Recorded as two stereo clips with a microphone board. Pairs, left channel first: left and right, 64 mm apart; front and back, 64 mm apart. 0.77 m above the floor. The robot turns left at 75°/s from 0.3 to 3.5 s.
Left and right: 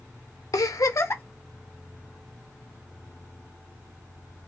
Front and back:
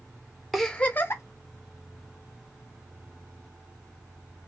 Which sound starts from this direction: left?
A giggle, at 0.5 s.